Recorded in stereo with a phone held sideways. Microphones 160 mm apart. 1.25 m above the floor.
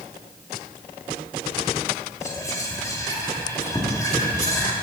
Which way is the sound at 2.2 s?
20° left (ahead or behind).